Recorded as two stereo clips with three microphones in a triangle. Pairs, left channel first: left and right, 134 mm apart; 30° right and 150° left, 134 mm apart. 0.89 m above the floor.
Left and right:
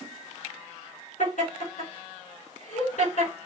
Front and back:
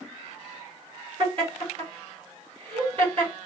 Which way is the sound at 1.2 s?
100° left.